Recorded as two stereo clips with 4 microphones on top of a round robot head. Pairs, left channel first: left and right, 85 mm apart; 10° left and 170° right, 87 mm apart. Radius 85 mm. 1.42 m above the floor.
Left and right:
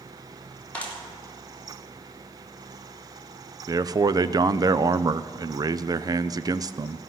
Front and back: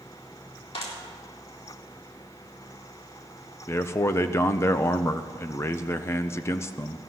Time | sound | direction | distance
0.7 | a clap | 15° left | 3 m
3.7 | a man speaking | 50° right | 0.6 m